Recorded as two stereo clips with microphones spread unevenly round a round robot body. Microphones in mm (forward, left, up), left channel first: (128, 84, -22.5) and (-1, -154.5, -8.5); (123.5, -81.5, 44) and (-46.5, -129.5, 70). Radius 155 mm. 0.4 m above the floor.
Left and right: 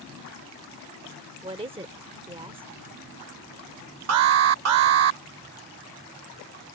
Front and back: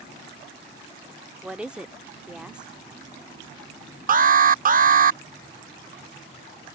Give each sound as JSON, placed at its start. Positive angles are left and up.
{"t": 1.4, "sound": "a woman speaking", "azimuth_deg": -65}
{"t": 4.1, "sound": "an alarm", "azimuth_deg": -125}